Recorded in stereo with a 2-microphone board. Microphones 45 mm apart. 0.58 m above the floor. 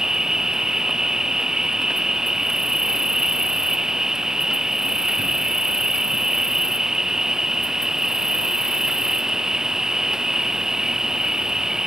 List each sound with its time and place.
0.0 s an insect: 10° right (ahead or behind)